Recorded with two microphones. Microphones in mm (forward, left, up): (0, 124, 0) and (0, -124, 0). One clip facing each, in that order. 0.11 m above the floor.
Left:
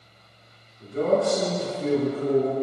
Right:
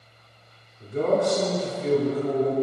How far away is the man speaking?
About 1.8 m.